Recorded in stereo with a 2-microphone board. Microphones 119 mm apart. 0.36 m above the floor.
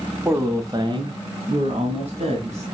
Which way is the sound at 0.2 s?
20° right (ahead or behind).